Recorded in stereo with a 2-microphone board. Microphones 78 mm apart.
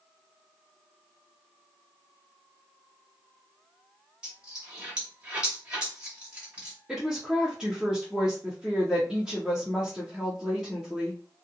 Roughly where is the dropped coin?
Centre.